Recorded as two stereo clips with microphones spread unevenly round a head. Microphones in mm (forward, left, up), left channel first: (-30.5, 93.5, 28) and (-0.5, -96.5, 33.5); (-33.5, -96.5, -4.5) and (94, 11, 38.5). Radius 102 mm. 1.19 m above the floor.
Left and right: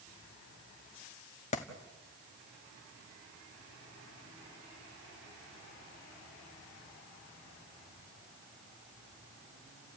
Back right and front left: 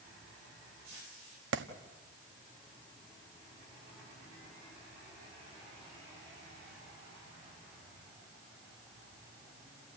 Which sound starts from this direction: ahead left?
A clap, at 1.5 s.